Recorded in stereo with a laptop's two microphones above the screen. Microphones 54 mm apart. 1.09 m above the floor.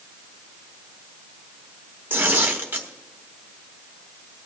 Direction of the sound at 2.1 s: 35° right (ahead or behind).